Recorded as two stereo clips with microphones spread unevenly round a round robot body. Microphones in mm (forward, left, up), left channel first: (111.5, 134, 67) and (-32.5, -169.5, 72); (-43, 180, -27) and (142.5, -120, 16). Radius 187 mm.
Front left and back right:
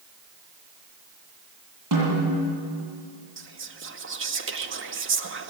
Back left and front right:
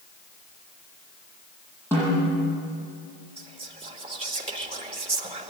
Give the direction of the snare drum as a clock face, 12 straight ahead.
5 o'clock.